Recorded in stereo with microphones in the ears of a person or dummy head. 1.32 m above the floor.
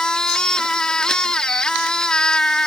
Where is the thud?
I don't hear a thud.